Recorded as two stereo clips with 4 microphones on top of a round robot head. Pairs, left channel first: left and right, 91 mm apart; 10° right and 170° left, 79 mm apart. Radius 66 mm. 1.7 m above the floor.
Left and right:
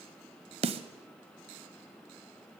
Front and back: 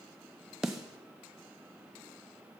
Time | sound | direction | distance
0.6 | a snare drum | 100° right | 0.8 m